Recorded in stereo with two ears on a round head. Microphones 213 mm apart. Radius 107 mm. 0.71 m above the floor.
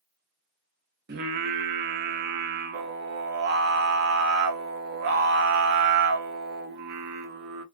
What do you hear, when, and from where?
1.1 s singing: 45° right (ahead or behind), 0.7 m